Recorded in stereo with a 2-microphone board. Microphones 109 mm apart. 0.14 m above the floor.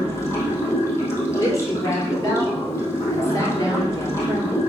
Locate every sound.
0.0 s running water: 25° left (ahead or behind), 3 m
1.4 s a woman speaking: 30° left (ahead or behind), 3.5 m